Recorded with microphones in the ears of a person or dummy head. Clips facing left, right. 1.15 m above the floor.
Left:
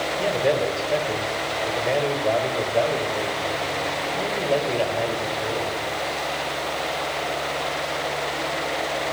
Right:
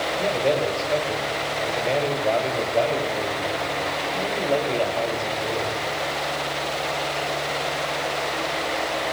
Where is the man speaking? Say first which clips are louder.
Left 1 dB; 10° left (ahead or behind), 6 m.